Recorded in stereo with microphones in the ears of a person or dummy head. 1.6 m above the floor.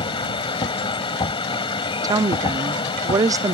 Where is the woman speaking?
20° right (ahead or behind).